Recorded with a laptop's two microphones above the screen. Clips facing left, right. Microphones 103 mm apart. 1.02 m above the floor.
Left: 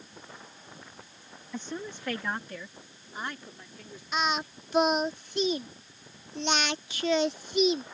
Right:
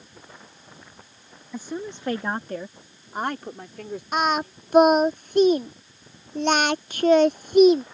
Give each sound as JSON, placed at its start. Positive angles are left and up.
{"t": 1.5, "sound": "a woman speaking", "side_deg": -5}
{"t": 4.1, "sound": "singing", "side_deg": -50}